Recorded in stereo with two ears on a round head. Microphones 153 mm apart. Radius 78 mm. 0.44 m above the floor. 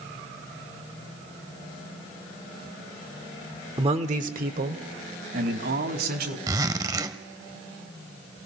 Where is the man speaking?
25° right (ahead or behind), 1.1 m; by 6.4 s 70° right (ahead or behind), 4 m.